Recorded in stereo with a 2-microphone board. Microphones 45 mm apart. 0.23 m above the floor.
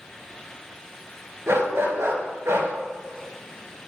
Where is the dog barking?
75° right (ahead or behind), 1.8 m.